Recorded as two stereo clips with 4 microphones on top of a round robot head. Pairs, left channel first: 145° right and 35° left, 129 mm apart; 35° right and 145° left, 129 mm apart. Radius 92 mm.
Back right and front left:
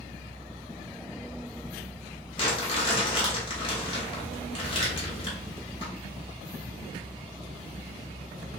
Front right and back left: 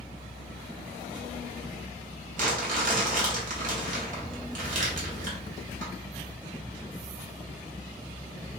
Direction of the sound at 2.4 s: 165° left.